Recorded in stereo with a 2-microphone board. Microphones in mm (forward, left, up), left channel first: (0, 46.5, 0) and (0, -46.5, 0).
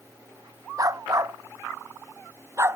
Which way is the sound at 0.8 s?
35° right (ahead or behind).